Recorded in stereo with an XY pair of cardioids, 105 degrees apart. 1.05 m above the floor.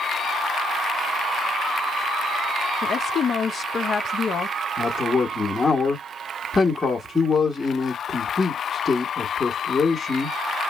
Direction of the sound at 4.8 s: 20° left.